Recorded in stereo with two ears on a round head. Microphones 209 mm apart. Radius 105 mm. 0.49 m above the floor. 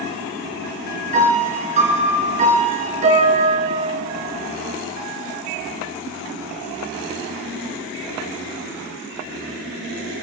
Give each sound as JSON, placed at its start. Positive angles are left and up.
{"t": 1.1, "sound": "a piano", "side_deg": -35, "distance_m": 3.5}